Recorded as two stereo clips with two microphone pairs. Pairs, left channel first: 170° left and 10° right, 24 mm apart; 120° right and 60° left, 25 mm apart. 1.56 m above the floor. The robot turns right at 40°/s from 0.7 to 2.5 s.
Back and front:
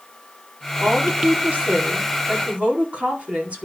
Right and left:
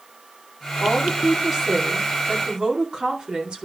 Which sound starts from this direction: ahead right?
A woman speaking, at 0.8 s.